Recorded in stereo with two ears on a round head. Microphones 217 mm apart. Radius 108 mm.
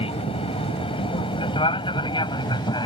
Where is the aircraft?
25° left (ahead or behind); by 2.9 s 20° left (ahead or behind).